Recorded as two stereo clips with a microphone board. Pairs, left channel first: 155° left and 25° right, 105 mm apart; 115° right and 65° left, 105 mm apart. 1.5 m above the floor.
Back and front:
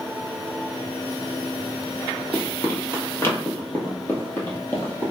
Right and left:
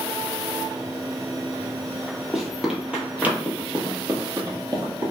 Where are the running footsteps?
165° left, 1.6 m; by 5.1 s 90° left, 2 m.